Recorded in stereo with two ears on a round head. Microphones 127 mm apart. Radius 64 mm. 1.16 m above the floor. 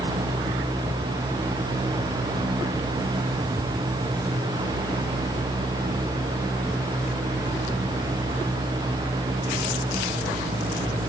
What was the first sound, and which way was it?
Only background noise.